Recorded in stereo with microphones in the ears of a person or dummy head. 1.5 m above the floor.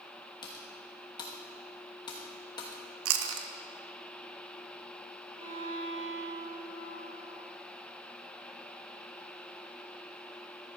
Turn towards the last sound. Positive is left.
turn(degrees=-40)  # may be behind; listen again after turning